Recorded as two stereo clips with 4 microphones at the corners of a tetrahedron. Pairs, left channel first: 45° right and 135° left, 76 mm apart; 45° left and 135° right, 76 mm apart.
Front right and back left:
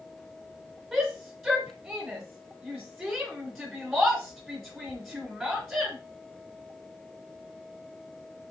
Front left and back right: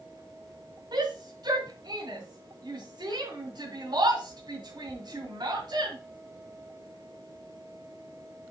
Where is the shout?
155° right, 3 m.